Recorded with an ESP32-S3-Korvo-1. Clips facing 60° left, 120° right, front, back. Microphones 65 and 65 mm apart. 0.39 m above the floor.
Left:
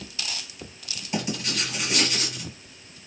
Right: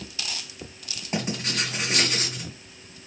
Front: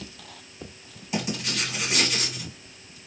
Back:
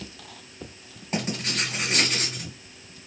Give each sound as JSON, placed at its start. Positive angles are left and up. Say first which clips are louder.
{"t": 1.1, "sound": "writing", "louder": "even, even", "azimuth_deg": -150, "distance_m": 2.0}